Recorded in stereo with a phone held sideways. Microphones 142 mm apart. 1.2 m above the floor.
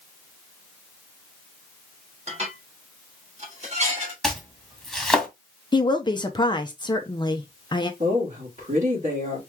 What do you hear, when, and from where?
2.3 s dishes clattering: 45° right (ahead or behind), 2.5 m
4.2 s chopping: centre (ahead or behind), 1.9 m
5.7 s a woman speaking: 30° left (ahead or behind), 0.7 m
8.0 s a woman speaking: 55° right (ahead or behind), 3 m